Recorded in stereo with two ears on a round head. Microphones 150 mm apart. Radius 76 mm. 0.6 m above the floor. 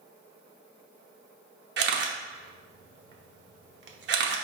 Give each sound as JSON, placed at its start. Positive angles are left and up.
{"t": 1.8, "sound": "a camera shutter", "side_deg": -70, "distance_m": 0.7}